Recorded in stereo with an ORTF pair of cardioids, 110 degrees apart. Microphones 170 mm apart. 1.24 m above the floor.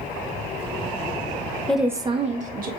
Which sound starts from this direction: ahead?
A woman speaking, at 1.7 s.